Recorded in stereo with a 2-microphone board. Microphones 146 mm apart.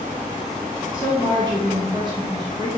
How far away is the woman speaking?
About 1.4 m.